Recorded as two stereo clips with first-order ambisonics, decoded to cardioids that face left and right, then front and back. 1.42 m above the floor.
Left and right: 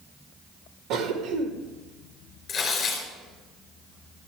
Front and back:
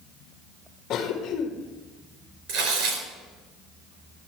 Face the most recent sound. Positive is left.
turn(degrees=150)